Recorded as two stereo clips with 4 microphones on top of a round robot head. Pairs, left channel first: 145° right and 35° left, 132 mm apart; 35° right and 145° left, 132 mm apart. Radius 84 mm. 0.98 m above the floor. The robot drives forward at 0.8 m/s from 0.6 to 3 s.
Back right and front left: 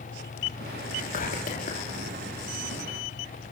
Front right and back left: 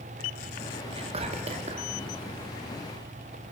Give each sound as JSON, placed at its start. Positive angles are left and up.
{"t": 0.9, "sound": "whispering", "azimuth_deg": -170, "distance_m": 2.0}